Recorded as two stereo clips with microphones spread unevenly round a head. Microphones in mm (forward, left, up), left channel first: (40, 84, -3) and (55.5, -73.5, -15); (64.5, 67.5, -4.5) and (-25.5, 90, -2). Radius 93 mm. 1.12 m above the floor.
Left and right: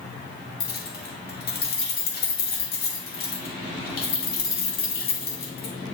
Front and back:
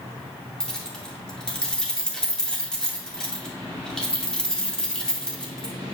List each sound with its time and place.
0.6 s keys jangling: 70° left, 2 m